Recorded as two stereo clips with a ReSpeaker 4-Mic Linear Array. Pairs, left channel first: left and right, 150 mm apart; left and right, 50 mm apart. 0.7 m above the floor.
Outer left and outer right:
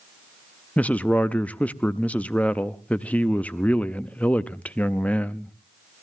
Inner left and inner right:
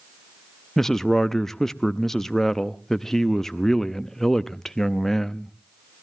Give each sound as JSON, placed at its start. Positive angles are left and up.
{"t": 0.8, "sound": "a man speaking", "side_deg": 10, "distance_m": 0.5}